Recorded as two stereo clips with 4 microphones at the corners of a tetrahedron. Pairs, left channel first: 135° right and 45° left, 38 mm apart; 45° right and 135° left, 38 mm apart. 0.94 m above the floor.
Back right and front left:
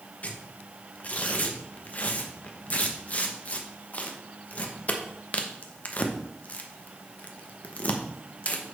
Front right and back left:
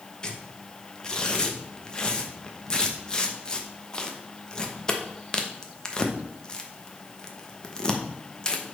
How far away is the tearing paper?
About 1.0 m.